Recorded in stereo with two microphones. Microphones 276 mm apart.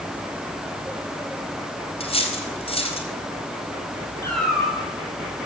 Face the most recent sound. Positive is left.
turn(degrees=80)